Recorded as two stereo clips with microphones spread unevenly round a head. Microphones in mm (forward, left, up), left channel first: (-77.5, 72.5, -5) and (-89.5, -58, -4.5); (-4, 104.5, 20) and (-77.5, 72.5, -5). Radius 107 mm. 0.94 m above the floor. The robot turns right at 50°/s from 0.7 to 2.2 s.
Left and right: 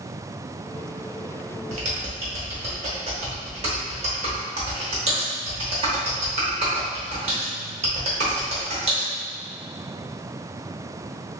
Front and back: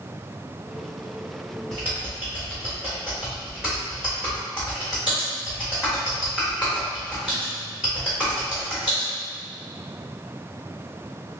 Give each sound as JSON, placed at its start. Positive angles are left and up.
{"t": 1.7, "sound": "typing on a keyboard", "azimuth_deg": -85, "distance_m": 0.8}